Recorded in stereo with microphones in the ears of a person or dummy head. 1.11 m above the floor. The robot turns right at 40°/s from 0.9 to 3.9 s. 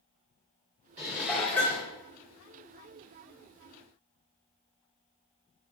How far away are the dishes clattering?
About 1.2 m.